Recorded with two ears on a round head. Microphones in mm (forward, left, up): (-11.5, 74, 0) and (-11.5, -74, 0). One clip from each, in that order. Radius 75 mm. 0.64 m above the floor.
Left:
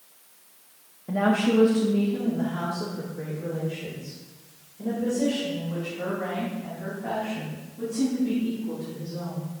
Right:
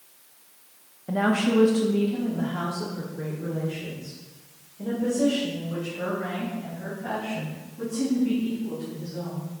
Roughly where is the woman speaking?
Centre.